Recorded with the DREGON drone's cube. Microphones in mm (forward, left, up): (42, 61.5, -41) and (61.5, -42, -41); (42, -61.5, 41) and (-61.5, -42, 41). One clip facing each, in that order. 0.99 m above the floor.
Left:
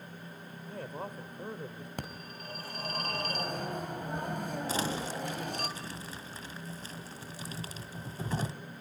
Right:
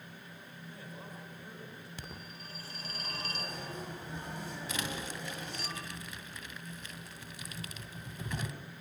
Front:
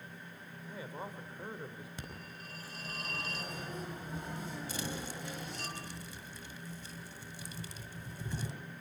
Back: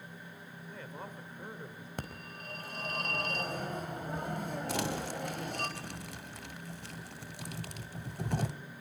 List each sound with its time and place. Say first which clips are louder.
0.7 s a man speaking: left 9 dB, front 2 dB; 70° left, 4 m
2.0 s a phone ringing: left 5 dB, back 4 dB; 135° left, 4 m
4.7 s crumpling: left 5 dB, back 8 dB; 155° left, 1.9 m